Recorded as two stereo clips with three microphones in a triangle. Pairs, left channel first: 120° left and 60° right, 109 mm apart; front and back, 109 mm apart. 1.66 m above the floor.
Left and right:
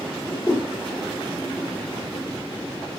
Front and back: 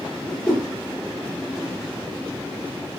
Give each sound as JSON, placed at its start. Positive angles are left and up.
{"t": 0.2, "sound": "a whoosh", "azimuth_deg": 65, "distance_m": 3.0}